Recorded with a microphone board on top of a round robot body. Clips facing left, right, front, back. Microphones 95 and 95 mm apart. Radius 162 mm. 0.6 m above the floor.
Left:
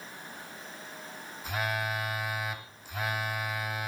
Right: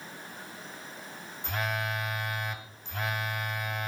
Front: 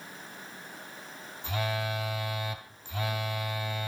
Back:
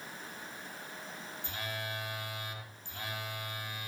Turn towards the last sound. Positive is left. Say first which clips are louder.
# even, front 10 dB
turn(degrees=0)